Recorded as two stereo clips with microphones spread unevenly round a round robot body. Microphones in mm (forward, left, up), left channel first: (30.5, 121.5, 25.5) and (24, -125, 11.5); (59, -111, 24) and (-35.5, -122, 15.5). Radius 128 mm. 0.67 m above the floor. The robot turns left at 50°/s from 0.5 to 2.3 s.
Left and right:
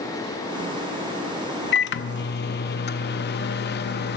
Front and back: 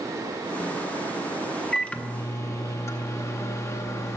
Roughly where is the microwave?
Left.